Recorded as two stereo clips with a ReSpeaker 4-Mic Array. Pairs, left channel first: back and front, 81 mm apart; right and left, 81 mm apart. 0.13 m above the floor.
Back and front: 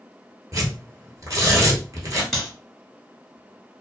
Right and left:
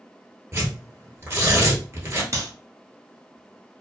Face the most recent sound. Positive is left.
turn(degrees=85)